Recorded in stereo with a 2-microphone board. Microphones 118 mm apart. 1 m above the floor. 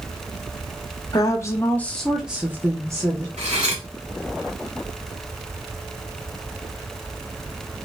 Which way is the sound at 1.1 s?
35° left (ahead or behind).